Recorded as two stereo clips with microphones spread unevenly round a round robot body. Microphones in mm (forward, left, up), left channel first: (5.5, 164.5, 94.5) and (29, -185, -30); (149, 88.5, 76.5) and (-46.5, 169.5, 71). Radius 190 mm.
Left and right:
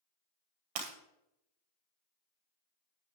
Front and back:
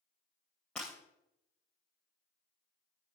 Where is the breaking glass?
110° right, 3 m.